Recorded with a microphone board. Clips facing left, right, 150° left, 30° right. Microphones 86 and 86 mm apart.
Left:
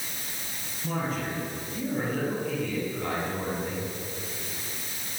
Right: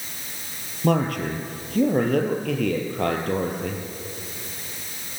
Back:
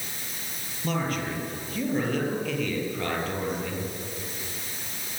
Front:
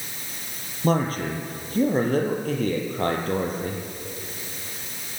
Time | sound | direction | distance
0.8 | a man speaking | 80° right | 4 m